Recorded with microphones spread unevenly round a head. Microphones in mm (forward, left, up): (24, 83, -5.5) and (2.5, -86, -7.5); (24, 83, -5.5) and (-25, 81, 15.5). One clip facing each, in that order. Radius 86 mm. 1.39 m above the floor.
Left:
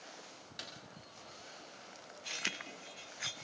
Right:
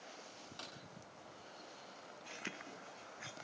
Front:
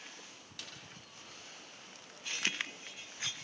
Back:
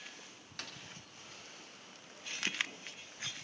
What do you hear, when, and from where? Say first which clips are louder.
0.6 s a snare drum: left 2 dB, back 3 dB; 155° left, 7 m